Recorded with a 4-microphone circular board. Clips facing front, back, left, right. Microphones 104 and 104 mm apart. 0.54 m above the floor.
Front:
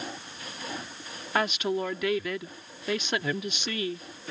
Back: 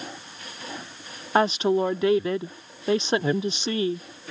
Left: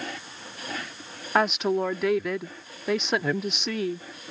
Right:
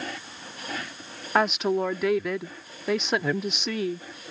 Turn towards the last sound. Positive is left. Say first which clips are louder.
# back 7 dB, even
turn(degrees=180)